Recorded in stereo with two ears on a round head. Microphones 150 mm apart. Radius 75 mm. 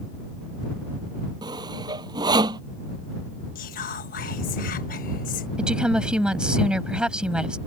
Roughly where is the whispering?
Left.